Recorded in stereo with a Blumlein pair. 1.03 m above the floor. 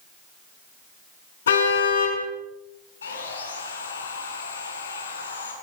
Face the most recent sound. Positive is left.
turn(degrees=70)